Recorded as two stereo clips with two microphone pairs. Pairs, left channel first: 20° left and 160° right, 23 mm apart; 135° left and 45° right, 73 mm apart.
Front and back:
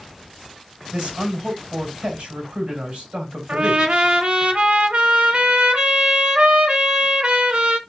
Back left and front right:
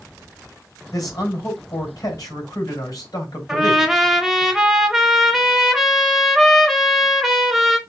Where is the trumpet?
125° right, 0.8 m.